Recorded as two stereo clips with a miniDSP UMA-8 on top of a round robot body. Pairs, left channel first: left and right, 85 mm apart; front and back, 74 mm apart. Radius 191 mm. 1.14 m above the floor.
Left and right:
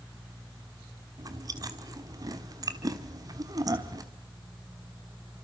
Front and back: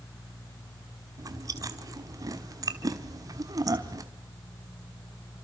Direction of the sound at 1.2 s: 140° right.